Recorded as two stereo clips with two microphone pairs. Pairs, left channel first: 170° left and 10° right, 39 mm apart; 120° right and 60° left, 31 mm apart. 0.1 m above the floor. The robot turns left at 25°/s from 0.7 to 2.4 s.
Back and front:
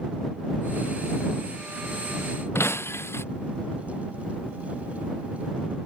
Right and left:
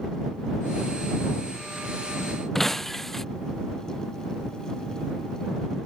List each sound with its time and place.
2.5 s breaking glass: 160° left